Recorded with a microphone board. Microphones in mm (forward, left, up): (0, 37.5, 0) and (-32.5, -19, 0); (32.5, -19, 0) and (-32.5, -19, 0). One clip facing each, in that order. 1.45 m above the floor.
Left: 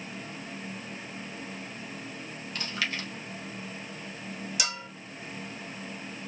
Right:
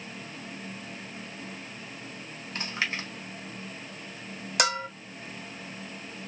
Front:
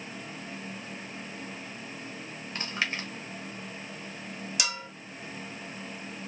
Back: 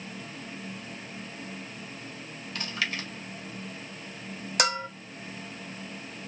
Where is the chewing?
60° right, 1.3 m.